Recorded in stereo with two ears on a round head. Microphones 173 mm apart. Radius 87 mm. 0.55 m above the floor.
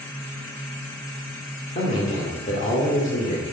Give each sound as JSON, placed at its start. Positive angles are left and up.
{"t": 1.8, "sound": "a man speaking", "side_deg": 40, "distance_m": 1.7}